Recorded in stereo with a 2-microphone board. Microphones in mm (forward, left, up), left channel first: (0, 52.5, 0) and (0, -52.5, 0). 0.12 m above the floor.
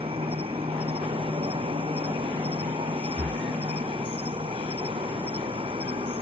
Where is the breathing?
20° left (ahead or behind).